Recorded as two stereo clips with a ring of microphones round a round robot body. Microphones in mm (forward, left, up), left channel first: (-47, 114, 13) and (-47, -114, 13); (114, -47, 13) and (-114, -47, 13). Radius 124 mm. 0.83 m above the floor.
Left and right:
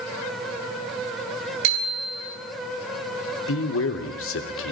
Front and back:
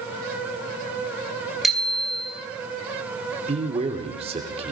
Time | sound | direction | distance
1.6 | a bicycle bell | 90° right | 6 m
3.5 | a man speaking | 115° left | 3 m